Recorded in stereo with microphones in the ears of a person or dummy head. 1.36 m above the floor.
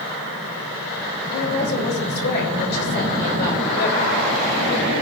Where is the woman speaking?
55° left (ahead or behind), 3.5 m.